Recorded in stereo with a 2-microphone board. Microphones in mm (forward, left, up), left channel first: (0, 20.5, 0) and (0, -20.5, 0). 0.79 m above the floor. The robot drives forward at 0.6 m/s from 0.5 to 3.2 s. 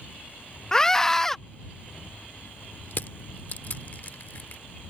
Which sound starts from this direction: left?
Crushing, at 2.9 s.